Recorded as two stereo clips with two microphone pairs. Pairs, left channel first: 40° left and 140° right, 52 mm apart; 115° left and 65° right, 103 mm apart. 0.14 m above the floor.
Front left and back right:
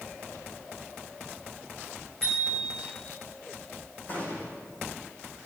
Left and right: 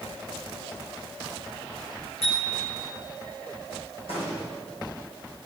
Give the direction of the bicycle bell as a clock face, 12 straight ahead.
8 o'clock.